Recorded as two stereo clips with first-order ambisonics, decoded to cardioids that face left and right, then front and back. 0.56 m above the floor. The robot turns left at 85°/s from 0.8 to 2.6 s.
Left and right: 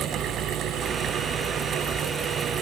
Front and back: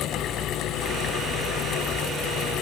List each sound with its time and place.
Only background noise.